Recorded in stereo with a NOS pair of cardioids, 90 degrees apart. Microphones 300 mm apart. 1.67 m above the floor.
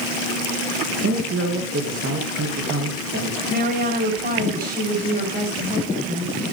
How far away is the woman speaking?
About 9.5 m.